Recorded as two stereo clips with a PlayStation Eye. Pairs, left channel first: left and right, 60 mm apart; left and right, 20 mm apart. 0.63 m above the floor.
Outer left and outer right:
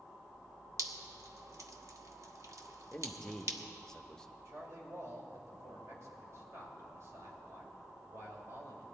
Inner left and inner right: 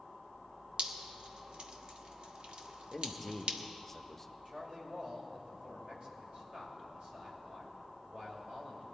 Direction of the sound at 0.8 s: 60° right (ahead or behind).